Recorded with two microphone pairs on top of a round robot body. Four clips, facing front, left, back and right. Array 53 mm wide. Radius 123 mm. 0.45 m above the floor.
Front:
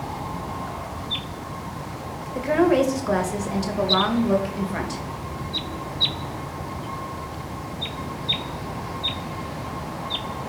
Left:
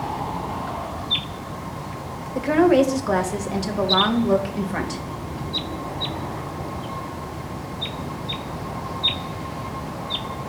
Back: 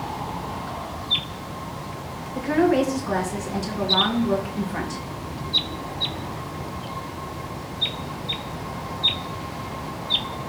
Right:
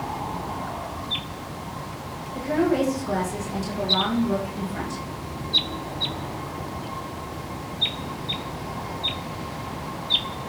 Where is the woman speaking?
65° left, 2 m.